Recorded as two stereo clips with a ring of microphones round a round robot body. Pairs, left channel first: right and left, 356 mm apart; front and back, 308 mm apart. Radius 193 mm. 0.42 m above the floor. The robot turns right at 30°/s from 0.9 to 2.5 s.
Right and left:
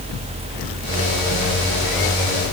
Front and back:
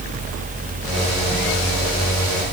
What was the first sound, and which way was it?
Only background noise.